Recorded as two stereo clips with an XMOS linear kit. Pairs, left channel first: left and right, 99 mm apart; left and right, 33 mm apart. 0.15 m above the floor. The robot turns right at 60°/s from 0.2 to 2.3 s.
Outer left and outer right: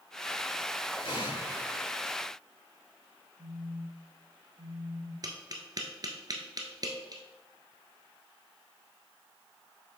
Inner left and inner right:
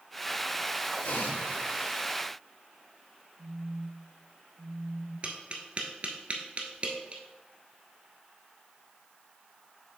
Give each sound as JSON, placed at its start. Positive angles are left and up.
{"t": 1.0, "sound": "an explosion", "azimuth_deg": 90, "distance_m": 3.0}
{"t": 3.4, "sound": "a phone buzzing", "side_deg": -60, "distance_m": 2.0}
{"t": 5.2, "sound": "tapping", "side_deg": -40, "distance_m": 0.9}